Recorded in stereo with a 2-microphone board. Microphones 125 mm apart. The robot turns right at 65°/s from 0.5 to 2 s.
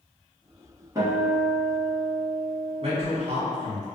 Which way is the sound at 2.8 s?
50° right (ahead or behind).